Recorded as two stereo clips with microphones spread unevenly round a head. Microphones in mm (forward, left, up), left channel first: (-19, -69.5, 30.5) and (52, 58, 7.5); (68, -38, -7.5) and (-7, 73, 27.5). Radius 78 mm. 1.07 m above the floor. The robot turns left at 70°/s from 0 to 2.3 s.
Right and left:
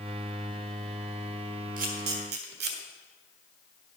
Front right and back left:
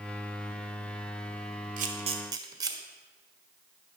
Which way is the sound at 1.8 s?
100° left.